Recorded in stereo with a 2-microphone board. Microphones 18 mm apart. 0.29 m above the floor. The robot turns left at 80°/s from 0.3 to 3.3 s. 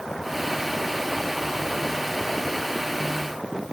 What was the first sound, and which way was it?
Only background noise.